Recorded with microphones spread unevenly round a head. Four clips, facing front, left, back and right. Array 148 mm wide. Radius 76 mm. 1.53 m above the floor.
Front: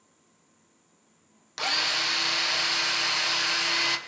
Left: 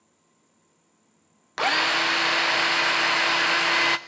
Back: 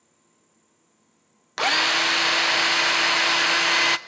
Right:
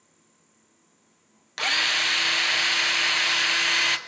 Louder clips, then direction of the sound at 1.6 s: Left 5 dB, back 8 dB; 135° left.